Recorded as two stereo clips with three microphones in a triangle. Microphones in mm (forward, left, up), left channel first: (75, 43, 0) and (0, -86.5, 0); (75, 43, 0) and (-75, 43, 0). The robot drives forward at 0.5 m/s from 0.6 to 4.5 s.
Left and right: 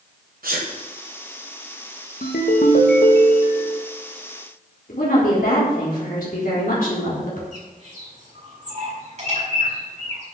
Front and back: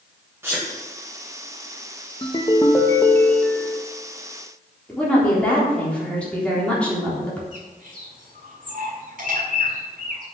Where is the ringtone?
60° left, 1.5 m; by 3.8 s 90° left, 1.3 m.